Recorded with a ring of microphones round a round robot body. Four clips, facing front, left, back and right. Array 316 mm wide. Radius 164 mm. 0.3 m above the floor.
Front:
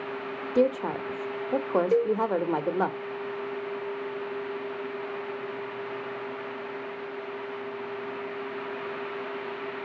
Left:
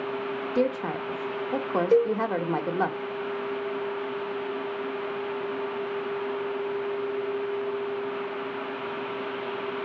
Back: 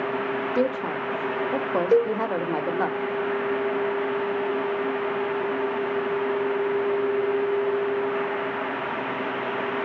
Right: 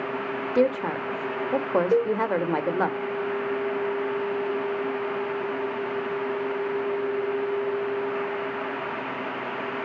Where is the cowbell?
170° left, 1.2 m.